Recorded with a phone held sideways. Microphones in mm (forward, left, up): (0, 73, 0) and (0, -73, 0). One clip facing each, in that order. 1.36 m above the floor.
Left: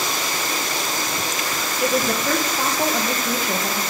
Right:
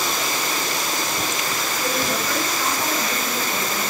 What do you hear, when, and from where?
1.8 s a woman speaking: 70° left (ahead or behind), 1.4 m